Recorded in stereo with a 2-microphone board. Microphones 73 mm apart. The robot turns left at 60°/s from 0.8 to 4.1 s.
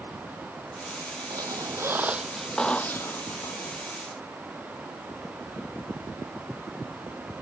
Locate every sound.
1.3 s a squeak: 110° right; by 3.7 s 105° left